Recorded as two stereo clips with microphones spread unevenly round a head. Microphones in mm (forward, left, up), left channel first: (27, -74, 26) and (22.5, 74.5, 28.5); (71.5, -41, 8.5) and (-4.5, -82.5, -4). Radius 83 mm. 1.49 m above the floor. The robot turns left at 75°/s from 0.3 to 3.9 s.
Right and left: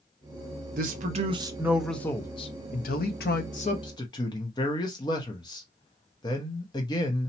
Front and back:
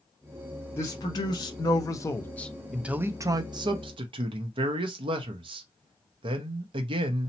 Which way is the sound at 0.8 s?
85° left.